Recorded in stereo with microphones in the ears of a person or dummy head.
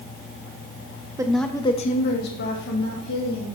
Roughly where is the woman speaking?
Centre.